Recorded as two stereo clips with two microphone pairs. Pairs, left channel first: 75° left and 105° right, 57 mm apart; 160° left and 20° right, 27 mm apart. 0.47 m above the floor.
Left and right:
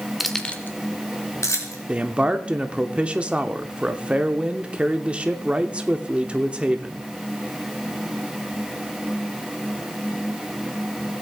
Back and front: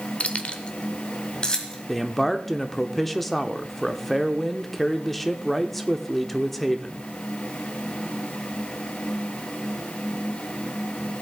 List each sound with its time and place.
0.2 s keys jangling: 165° left, 0.9 m; by 1.8 s 100° left, 2.5 m
1.9 s a man speaking: 115° right, 0.7 m